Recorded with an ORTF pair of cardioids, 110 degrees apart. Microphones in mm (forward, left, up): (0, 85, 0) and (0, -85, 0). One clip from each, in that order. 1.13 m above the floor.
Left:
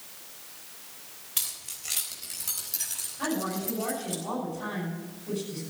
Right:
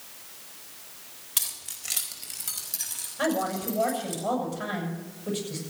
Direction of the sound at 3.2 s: 65° right.